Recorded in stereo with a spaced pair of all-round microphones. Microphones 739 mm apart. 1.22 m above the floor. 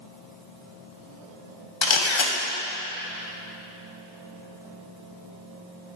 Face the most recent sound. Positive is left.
turn(degrees=40)  # may be behind; listen again after turning